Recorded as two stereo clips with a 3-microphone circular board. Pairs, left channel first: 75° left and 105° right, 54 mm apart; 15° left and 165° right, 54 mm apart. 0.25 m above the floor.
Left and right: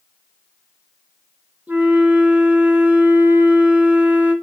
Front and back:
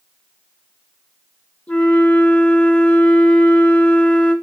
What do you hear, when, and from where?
1.7 s a flute: 50° right, 2.0 m